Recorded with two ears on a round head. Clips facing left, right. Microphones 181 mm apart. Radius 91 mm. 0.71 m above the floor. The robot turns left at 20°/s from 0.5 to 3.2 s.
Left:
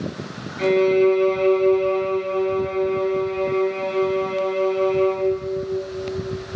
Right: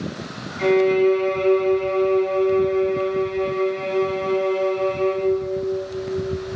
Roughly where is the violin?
Behind left.